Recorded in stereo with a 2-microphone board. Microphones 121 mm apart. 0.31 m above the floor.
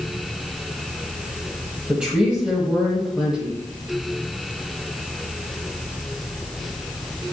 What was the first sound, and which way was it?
A woman speaking, 10° right (ahead or behind).